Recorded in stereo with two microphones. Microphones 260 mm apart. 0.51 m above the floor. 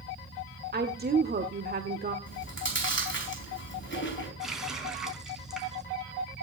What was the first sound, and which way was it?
A woman speaking, 40° right (ahead or behind).